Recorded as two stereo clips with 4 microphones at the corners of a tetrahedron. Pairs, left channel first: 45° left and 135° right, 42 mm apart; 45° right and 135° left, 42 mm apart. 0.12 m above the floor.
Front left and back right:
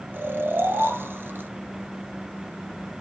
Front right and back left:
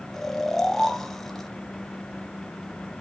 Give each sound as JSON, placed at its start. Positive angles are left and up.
{"t": 0.1, "sound": "snoring", "azimuth_deg": -125, "distance_m": 0.7}